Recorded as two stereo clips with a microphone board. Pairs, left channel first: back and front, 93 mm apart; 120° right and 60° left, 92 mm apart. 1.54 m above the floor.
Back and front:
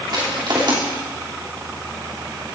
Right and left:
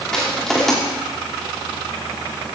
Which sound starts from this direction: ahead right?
Crushing, at 0.1 s.